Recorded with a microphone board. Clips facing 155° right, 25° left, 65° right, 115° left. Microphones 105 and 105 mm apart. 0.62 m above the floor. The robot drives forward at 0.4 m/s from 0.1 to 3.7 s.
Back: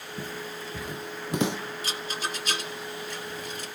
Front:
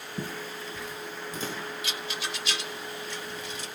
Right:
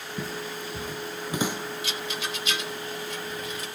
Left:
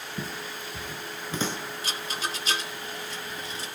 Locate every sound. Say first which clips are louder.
0.2 s footsteps: front 1 dB, right 3 dB; 30° left, 0.6 m; by 1.6 s 145° right, 2 m
1.8 s a rattle: back 2 dB, even; 155° left, 0.9 m; by 3.7 s 170° left, 1.6 m